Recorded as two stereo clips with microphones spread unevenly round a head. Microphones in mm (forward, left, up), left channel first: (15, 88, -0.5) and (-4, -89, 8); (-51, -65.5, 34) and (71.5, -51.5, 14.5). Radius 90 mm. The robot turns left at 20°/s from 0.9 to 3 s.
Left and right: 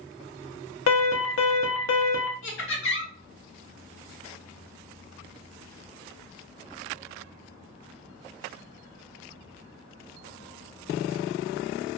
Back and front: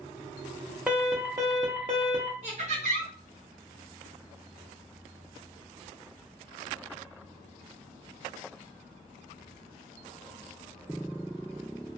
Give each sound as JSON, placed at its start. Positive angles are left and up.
{"t": 0.9, "sound": "an alarm", "azimuth_deg": 95, "distance_m": 0.7}
{"t": 2.4, "sound": "laughter", "azimuth_deg": 70, "distance_m": 1.3}